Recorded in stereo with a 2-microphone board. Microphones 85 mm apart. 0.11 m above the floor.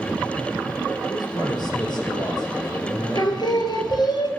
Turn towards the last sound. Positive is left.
turn(degrees=55)  # may be behind; listen again after turning